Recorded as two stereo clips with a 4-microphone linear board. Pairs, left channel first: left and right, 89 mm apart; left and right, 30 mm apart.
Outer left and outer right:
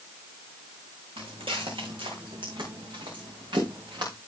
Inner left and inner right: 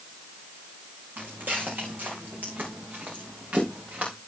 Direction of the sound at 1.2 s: 80° right.